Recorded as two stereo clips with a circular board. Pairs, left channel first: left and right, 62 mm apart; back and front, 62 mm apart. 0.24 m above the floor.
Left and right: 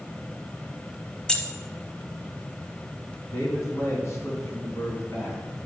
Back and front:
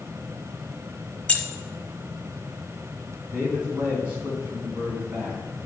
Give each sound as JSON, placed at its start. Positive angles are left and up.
{"t": 1.3, "sound": "keys jangling", "azimuth_deg": 150, "distance_m": 0.7}
{"t": 3.3, "sound": "a man speaking", "azimuth_deg": 60, "distance_m": 2.5}